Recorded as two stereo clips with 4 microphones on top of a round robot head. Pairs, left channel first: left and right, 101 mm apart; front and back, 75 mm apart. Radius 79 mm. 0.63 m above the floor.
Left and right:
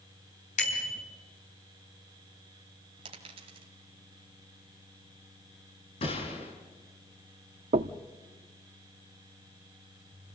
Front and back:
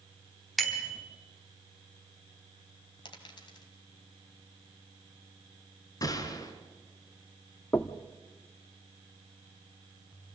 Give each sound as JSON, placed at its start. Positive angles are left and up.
{"t": 0.6, "sound": "a bicycle bell", "azimuth_deg": 90, "distance_m": 4.5}
{"t": 3.0, "sound": "a dropped coin", "azimuth_deg": -45, "distance_m": 2.0}
{"t": 6.0, "sound": "a gunshot", "azimuth_deg": 40, "distance_m": 3.0}
{"t": 7.7, "sound": "knocking", "azimuth_deg": -70, "distance_m": 0.7}